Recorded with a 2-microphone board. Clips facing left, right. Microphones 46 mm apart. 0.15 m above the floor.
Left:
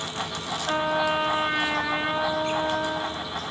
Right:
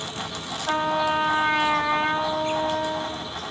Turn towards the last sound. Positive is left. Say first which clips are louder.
# right 1 dB
turn(degrees=-20)  # may be behind; listen again after turning